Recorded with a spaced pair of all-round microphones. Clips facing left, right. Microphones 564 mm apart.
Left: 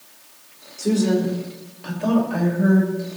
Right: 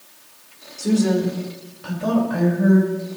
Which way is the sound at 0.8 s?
35° right (ahead or behind).